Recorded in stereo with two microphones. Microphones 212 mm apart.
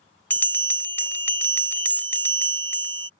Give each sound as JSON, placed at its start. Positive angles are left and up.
{"t": 0.3, "sound": "a bell", "side_deg": 10}